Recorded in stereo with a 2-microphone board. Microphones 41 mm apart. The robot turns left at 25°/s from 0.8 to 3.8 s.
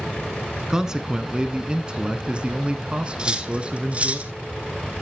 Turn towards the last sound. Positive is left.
turn(degrees=-35)  # may be behind; listen again after turning